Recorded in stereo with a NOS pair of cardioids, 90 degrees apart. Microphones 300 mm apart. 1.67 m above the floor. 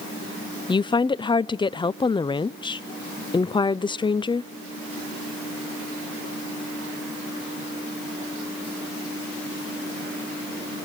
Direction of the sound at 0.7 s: 15° left.